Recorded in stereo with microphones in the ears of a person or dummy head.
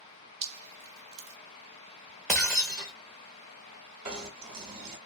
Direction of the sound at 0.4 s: 35° right (ahead or behind).